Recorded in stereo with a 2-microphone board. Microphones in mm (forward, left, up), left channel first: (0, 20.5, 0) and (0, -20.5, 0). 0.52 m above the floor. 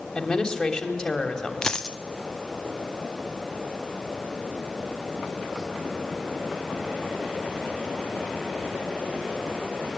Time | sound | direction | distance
0.1 | a woman speaking | 15° left (ahead or behind) | 3 m
1.6 | a dropped coin | 15° left (ahead or behind) | 0.7 m